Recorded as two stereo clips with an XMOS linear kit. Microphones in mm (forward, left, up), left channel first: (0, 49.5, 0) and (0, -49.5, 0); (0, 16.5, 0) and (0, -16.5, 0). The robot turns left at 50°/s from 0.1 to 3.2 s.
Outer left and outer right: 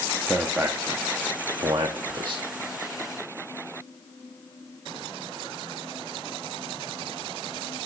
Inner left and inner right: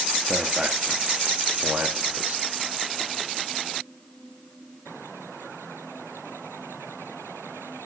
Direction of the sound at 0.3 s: 5° right (ahead or behind).